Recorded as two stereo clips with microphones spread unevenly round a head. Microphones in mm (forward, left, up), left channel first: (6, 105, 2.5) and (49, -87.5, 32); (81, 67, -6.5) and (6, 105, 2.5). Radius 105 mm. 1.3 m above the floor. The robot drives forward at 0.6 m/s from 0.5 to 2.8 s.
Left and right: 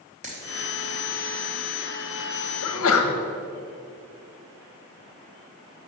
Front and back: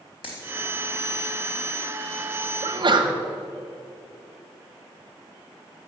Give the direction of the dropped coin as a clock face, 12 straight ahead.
1 o'clock.